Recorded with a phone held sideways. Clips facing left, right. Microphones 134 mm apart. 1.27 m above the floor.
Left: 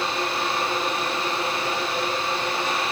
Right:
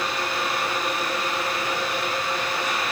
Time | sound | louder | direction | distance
0.0 | a fan | left 1 dB | 30° left (ahead or behind) | 0.9 m